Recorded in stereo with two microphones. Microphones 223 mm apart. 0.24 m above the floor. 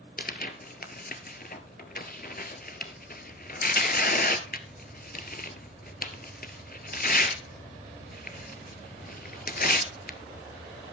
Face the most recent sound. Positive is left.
turn(degrees=45)  # may be behind; listen again after turning